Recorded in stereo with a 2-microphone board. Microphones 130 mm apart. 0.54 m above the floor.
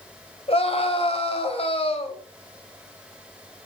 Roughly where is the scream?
Left.